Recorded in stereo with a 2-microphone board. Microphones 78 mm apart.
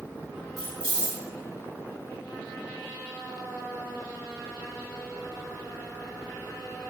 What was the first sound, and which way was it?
Keys jangling, 75° right (ahead or behind).